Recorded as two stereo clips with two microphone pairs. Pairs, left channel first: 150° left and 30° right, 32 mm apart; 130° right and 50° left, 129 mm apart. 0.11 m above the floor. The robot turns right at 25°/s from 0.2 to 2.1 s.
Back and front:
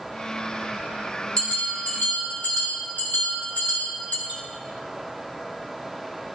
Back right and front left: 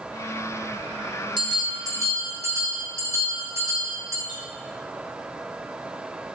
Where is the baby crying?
I don't hear a baby crying.